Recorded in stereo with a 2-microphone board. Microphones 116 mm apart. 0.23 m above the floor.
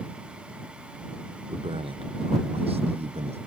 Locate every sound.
1.5 s a man speaking: 50° right (ahead or behind); by 3.4 s 60° right (ahead or behind)